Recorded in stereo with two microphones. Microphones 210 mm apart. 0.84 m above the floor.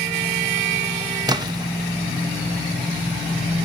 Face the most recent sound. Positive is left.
turn(degrees=-20)  # may be behind; listen again after turning